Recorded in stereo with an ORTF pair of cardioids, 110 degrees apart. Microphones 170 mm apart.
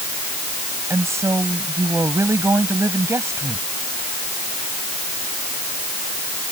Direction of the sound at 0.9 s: 15° right.